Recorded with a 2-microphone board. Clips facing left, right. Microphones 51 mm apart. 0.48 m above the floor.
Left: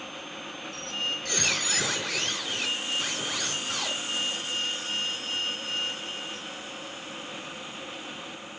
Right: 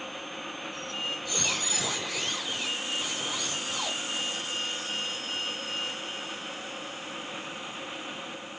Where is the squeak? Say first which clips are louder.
Left 4 dB; 75° left (ahead or behind), 4 m.